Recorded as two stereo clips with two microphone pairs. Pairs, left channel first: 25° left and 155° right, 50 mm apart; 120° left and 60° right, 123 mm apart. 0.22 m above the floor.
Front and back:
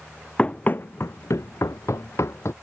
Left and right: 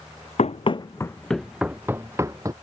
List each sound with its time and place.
0.4 s running footsteps: 95° left; by 2.5 s straight ahead